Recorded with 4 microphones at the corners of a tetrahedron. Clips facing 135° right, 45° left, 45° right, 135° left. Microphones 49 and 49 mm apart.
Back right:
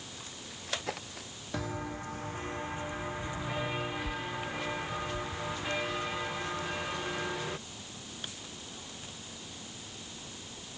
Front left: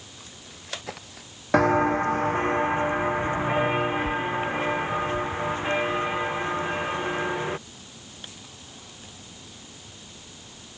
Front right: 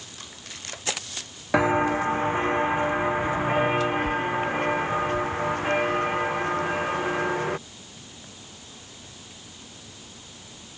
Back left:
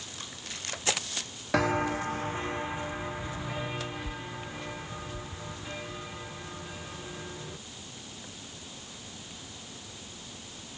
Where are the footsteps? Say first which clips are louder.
Front left 18 dB, front right 6 dB; 25° left; by 7.6 s 15° right.